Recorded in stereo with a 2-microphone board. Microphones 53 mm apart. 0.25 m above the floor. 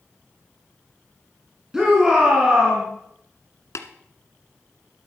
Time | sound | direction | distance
1.7 | a shout | 10° right (ahead or behind) | 3.5 m
3.8 | tapping | 70° left (ahead or behind) | 1.5 m